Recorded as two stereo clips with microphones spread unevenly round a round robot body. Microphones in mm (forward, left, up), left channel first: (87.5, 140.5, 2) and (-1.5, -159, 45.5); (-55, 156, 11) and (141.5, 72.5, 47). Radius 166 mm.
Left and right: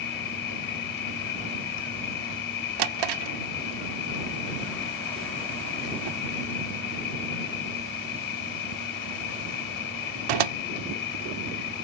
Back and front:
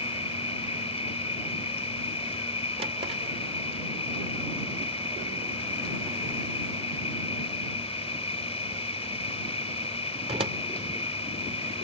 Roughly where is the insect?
Left.